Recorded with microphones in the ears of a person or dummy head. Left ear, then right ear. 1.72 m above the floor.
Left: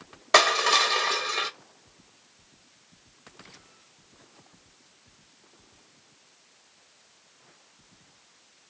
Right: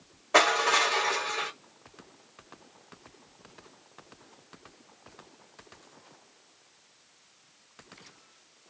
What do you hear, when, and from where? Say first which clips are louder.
0.3 s crushing: left 3 dB; 70° left (ahead or behind), 1.1 m